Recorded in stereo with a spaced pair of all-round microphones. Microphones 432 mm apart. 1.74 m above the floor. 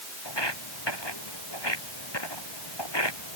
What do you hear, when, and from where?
0.2 s footsteps: 75° left (ahead or behind)